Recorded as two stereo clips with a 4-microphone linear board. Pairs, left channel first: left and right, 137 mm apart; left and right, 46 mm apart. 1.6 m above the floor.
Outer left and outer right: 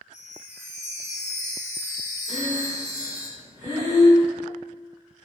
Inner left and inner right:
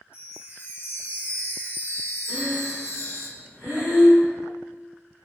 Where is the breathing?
60° left (ahead or behind), 1.7 m.